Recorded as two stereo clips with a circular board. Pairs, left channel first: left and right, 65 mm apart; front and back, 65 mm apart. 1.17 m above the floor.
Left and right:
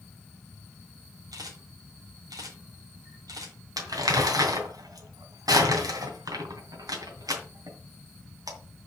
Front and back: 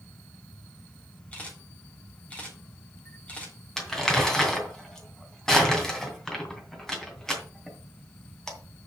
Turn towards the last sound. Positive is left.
turn(degrees=-80)